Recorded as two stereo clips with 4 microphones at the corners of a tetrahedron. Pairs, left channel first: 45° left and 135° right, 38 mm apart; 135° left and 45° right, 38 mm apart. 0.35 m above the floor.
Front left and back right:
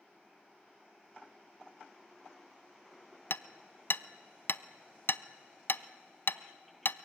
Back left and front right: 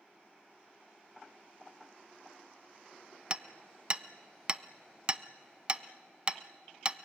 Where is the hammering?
20° left, 0.5 m.